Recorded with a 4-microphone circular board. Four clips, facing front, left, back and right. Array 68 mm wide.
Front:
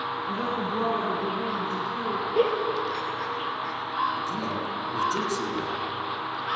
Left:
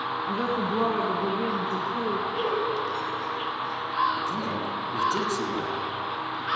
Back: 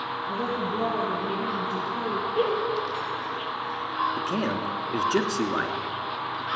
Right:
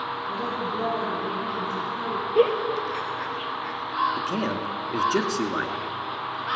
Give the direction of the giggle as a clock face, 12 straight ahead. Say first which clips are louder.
Right 5 dB, front 2 dB; 2 o'clock.